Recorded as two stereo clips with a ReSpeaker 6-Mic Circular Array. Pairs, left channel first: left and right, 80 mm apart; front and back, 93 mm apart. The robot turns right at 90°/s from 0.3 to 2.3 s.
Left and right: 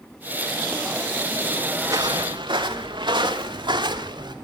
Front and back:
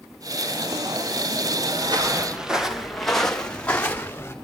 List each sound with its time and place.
1.8 s footsteps: 150° right, 3.5 m; by 4.3 s 65° right, 3.5 m